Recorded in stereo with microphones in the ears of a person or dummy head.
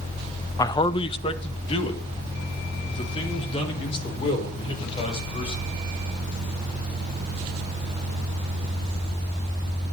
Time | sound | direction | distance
0.6 | a man speaking | 20° left (ahead or behind) | 0.5 m